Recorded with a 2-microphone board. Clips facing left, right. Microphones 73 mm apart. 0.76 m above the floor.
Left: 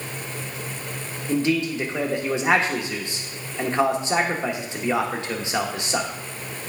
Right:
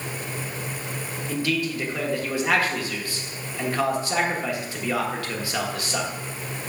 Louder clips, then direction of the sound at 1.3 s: Left 4 dB; 20° left (ahead or behind).